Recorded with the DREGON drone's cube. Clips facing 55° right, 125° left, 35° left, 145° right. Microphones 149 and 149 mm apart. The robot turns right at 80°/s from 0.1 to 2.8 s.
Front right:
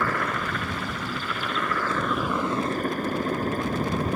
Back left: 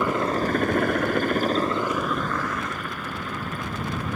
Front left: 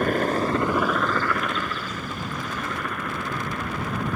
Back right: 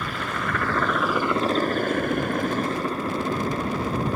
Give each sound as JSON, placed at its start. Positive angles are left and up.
{"t": 0.0, "sound": "a helicopter", "azimuth_deg": 55}